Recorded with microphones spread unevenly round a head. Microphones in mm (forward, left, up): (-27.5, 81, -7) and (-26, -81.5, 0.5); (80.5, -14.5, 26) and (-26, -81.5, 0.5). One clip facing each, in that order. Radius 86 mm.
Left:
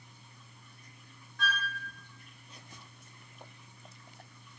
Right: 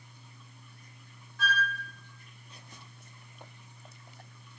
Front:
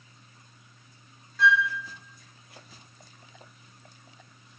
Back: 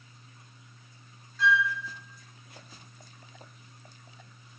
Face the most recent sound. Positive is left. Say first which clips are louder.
# right 4 dB, front 2 dB
turn(degrees=0)